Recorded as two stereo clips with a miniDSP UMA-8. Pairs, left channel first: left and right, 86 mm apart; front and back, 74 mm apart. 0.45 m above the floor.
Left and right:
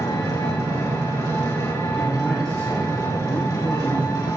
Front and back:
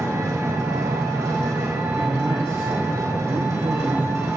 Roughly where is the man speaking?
Behind.